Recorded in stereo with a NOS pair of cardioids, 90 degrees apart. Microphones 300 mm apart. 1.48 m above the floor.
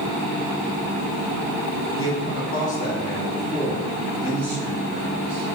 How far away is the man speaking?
About 1.4 m.